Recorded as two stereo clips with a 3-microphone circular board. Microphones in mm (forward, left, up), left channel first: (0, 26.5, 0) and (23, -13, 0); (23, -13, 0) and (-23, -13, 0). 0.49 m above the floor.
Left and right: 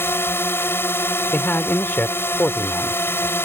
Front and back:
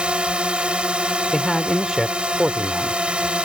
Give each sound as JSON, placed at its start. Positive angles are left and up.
{"t": 0.0, "sound": "a drone", "azimuth_deg": 120}
{"t": 1.3, "sound": "a man speaking", "azimuth_deg": 100}